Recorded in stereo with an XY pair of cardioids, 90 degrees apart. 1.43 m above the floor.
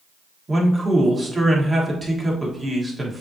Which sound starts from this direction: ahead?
A man speaking, at 0.5 s.